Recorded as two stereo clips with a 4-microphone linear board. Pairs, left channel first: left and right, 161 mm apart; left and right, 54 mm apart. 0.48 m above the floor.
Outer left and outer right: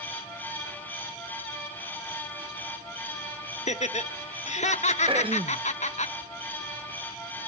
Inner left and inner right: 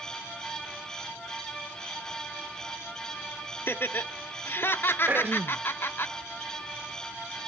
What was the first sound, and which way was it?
Laughter, 45° left (ahead or behind).